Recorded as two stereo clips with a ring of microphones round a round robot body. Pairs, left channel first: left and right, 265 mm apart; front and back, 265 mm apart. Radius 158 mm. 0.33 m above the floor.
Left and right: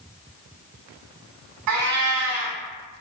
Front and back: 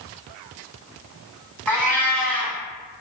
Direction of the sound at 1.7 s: 85° right.